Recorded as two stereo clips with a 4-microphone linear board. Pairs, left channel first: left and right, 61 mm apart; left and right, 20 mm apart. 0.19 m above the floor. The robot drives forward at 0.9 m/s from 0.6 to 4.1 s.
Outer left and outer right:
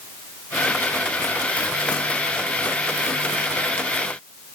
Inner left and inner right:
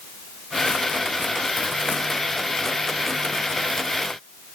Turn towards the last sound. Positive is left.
No sound to turn to.